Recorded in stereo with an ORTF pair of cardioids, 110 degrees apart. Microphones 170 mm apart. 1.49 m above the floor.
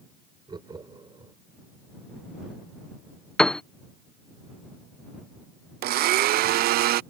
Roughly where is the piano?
Ahead.